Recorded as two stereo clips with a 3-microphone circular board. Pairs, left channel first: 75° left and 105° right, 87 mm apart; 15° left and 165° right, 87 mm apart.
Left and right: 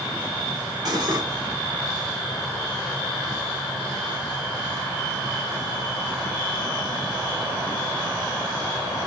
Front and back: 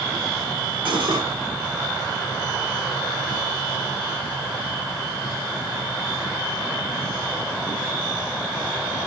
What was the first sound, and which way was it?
Cutlery clinking, 145° right.